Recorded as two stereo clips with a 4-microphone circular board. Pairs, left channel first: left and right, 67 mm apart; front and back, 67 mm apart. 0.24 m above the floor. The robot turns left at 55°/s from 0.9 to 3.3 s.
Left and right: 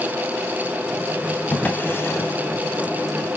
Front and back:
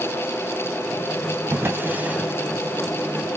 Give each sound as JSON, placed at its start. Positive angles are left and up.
{"t": 1.5, "sound": "a drawer", "azimuth_deg": 150, "distance_m": 0.8}